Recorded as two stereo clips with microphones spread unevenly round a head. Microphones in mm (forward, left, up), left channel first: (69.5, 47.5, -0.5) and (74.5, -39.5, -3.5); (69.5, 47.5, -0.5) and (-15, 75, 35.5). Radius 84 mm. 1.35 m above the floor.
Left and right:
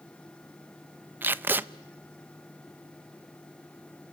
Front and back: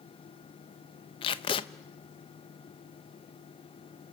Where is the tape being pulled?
35° right, 0.6 m.